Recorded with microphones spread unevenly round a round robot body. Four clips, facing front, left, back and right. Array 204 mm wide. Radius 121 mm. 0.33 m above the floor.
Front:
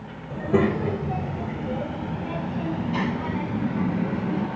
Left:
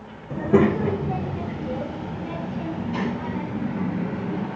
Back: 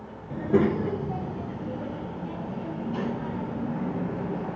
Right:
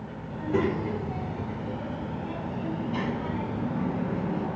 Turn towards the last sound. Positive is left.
turn(degrees=10)